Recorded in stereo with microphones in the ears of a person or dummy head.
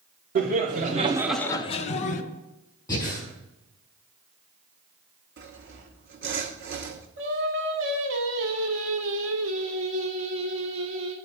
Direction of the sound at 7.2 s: 80° right.